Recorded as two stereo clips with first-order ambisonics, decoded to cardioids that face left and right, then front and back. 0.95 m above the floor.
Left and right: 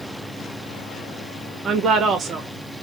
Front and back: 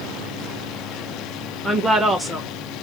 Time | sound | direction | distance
1.6 | a woman speaking | 105° right | 0.6 m